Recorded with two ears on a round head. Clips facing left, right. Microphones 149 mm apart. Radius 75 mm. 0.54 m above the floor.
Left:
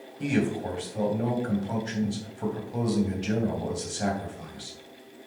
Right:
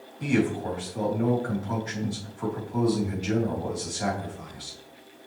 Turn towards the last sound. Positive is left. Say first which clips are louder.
# right 2 dB
turn(degrees=30)  # may be behind; listen again after turning